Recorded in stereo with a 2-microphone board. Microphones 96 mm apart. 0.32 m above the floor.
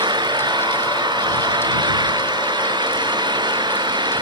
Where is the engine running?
50° right (ahead or behind).